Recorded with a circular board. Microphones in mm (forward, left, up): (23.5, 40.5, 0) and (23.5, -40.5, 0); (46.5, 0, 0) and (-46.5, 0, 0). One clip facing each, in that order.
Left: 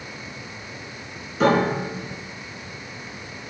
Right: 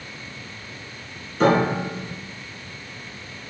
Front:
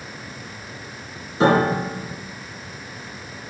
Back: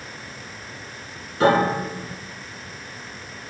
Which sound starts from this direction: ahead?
A piano, at 1.4 s.